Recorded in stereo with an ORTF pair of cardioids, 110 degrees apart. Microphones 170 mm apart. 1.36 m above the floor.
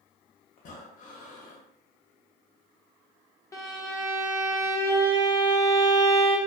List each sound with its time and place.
0.6 s breathing: 50° left, 0.7 m
3.5 s a violin: 20° left, 0.6 m